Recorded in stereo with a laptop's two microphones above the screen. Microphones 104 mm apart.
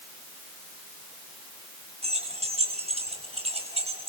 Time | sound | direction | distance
2.0 | keys jangling | 85° right | 5.5 m